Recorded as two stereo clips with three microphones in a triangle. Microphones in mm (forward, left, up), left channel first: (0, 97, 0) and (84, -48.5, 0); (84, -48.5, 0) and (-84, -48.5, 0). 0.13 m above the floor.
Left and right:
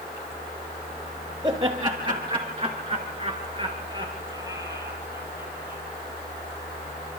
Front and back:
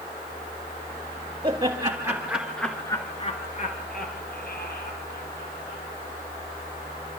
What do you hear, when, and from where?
1.4 s laughter: 125° right, 3 m; by 5.8 s 15° left, 5 m